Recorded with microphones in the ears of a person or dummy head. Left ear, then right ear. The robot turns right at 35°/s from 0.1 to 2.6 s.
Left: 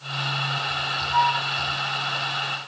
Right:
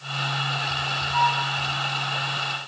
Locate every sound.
1.1 s a flute: 30° left (ahead or behind), 3.5 m; by 1.4 s 20° left (ahead or behind), 3.5 m